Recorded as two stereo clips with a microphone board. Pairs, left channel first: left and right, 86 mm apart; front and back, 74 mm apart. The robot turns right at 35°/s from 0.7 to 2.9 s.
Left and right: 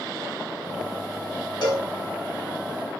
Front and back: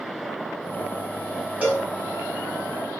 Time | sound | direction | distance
1.6 | a cowbell | 110° left | 2 m